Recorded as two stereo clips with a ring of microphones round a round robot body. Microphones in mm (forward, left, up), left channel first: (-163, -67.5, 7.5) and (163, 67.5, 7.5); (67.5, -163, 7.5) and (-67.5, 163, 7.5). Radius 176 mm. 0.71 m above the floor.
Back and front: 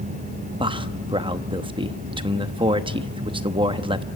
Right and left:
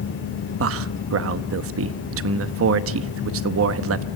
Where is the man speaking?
90° left, 0.8 m.